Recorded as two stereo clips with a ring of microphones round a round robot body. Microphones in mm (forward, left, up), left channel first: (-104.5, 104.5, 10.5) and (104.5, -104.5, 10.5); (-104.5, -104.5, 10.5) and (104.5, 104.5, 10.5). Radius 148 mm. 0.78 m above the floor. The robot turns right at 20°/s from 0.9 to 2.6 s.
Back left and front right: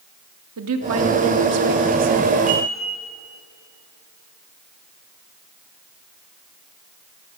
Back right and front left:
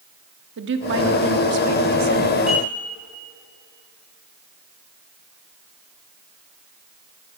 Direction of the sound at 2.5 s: 45° right.